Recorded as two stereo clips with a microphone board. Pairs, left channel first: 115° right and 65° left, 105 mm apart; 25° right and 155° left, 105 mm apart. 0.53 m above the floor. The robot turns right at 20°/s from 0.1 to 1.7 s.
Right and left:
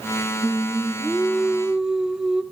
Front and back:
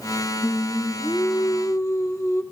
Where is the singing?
35° right, 1.3 m; by 2.4 s 10° right, 1.3 m.